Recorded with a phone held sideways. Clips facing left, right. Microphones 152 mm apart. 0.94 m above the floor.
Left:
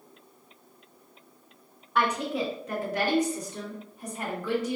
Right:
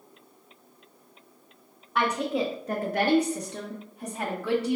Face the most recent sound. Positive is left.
turn(degrees=-70)  # may be behind; listen again after turning